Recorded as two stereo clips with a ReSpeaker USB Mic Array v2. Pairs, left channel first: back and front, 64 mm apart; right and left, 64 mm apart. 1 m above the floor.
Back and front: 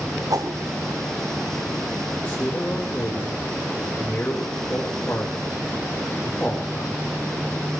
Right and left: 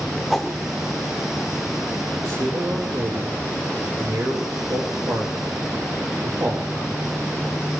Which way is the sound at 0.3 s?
5° right.